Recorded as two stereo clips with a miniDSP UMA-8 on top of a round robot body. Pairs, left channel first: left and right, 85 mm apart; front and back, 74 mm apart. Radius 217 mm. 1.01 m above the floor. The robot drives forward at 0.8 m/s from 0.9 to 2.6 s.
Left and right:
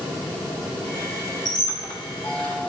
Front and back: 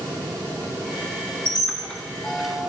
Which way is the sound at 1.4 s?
50° left.